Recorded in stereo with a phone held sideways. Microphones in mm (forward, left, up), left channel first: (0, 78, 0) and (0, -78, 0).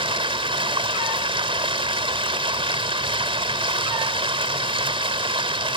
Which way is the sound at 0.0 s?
35° right (ahead or behind).